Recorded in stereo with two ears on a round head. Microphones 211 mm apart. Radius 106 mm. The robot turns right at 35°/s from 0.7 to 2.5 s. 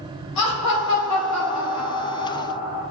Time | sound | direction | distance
0.4 | laughter | 80° left | 2 m